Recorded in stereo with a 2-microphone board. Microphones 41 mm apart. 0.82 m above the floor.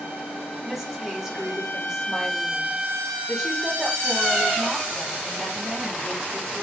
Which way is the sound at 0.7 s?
15° right (ahead or behind).